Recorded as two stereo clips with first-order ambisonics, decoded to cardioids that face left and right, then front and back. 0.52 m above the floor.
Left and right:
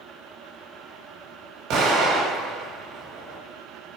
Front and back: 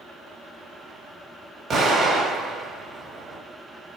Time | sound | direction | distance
1.7 | an explosion | 115° right | 1.5 m